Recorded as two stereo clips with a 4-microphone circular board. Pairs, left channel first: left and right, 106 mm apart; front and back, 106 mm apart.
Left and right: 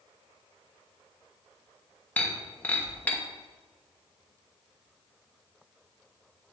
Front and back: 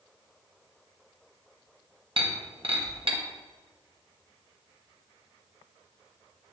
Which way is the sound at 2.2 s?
165° left.